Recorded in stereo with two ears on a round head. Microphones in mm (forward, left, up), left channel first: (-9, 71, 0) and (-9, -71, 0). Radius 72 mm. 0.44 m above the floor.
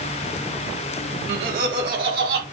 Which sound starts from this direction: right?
Laughter, at 1.3 s.